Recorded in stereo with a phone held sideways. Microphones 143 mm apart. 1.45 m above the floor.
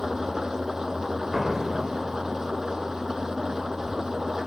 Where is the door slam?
Centre (ahead or behind).